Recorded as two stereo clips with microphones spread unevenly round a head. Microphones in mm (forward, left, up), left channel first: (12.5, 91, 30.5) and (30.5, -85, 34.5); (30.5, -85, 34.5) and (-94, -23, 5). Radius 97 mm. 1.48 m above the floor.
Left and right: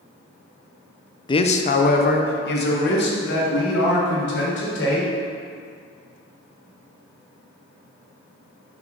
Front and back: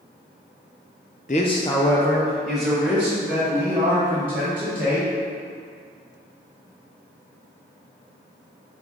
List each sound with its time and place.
1.3 s a man speaking: 30° left, 0.5 m; by 5.1 s 75° left, 3.5 m